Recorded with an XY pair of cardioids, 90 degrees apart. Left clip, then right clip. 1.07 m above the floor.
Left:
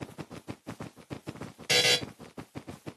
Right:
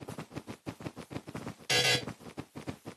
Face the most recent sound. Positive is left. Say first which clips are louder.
# left 3 dB
turn(degrees=45)